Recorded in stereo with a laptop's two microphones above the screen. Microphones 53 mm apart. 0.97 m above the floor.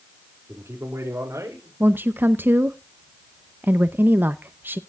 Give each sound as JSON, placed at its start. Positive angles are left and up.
{"t": 0.5, "sound": "a man speaking", "side_deg": -50, "distance_m": 2.5}
{"t": 1.8, "sound": "a woman speaking", "side_deg": -40, "distance_m": 0.7}